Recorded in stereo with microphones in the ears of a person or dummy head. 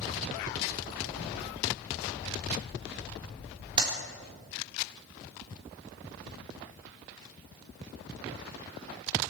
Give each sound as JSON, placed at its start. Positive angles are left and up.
{"t": 3.8, "sound": "a clap", "side_deg": -35, "distance_m": 4.0}